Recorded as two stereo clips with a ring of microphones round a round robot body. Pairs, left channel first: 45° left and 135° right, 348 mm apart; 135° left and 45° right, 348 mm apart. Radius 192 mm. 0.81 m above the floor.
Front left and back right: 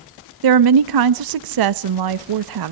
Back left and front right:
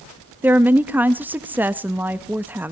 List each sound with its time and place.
0.4 s a woman speaking: 130° right, 0.7 m